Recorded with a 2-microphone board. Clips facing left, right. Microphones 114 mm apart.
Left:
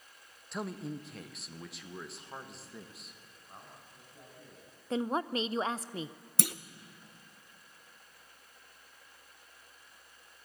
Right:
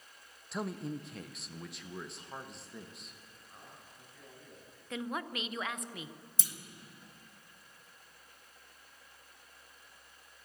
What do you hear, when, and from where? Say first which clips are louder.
0.5 s a man speaking: right 1 dB; centre (ahead or behind), 0.6 m
3.5 s a man speaking: left 3 dB; 40° left (ahead or behind), 9 m
4.9 s a woman speaking: left 6 dB; 35° left (ahead or behind), 0.6 m
6.4 s a clunk: left 16 dB; 70° left (ahead or behind), 0.6 m